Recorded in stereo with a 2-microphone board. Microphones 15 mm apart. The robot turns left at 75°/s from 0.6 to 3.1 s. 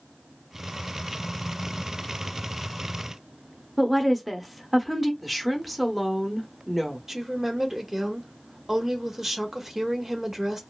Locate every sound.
3.8 s a woman speaking: centre (ahead or behind), 0.8 m
5.2 s a woman speaking: centre (ahead or behind), 0.8 m
7.1 s a woman speaking: 25° right (ahead or behind), 0.8 m